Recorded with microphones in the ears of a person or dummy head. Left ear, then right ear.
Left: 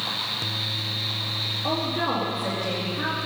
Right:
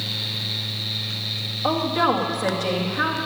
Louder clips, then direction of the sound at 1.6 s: Right 8 dB; 70° right (ahead or behind).